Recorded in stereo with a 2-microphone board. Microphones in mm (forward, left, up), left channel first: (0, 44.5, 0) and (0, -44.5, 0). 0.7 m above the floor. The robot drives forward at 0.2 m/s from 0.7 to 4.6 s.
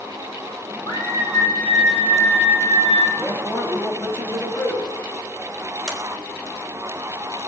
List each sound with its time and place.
0.9 s a scream: 65° left (ahead or behind), 3 m; by 3.1 s 70° left (ahead or behind), 2.5 m
3.2 s a man speaking: 25° left (ahead or behind), 5 m
5.9 s a sliding door: 5° right (ahead or behind), 3 m